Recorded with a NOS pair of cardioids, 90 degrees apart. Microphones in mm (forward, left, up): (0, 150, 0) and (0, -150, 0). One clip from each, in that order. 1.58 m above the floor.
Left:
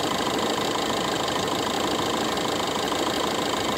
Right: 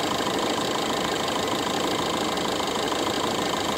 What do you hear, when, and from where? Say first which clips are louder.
0.0 s an engine running: even; straight ahead